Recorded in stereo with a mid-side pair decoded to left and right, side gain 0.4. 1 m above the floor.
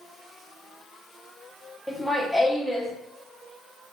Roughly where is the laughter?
Ahead.